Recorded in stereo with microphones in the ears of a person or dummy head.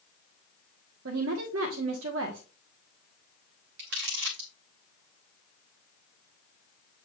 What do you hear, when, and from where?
1.1 s a woman speaking: 75° right (ahead or behind), 1.0 m
3.8 s crumpling: 55° right (ahead or behind), 1.3 m